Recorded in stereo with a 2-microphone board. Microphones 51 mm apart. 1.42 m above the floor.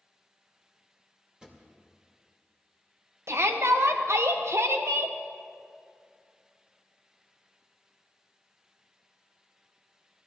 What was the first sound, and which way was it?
A drawer, 15° right (ahead or behind).